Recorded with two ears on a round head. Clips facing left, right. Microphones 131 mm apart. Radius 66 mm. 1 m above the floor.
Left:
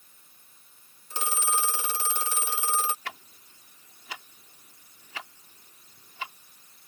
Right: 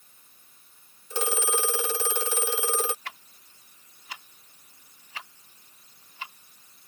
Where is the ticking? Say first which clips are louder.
Left 2 dB; 65° left (ahead or behind).